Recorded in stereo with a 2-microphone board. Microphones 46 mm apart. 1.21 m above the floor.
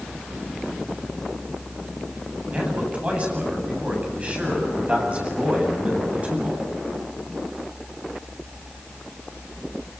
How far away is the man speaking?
About 8.5 m.